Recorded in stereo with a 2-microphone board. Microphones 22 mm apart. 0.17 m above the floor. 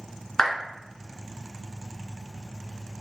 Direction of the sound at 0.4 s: 25° left (ahead or behind).